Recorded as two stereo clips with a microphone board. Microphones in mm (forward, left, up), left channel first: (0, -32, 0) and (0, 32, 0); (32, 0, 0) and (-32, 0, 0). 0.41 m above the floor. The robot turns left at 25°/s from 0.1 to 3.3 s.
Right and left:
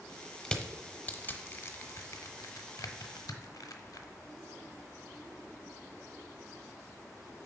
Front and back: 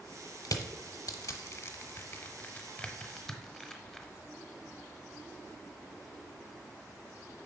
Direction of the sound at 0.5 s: 10° right.